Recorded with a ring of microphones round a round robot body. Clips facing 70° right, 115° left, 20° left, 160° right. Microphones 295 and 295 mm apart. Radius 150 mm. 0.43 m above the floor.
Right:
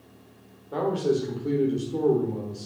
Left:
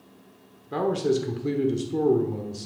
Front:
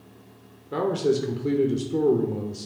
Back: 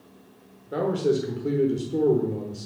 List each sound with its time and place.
0.7 s a man speaking: 95° left, 1.2 m